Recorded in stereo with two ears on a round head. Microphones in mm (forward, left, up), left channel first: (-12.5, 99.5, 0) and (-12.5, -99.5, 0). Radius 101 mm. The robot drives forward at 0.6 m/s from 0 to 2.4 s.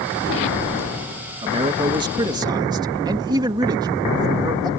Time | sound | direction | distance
1.4 | a man speaking | 25° right (ahead or behind) | ?